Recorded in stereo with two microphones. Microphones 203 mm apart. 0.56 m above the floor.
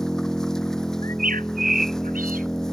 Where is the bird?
45° right (ahead or behind).